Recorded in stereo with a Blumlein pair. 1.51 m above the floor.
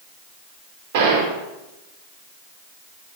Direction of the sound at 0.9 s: 50° right.